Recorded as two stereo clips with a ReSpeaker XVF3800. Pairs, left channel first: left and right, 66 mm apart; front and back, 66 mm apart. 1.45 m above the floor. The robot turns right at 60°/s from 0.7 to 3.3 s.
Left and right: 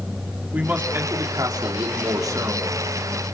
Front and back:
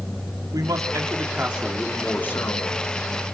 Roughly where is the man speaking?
Behind right.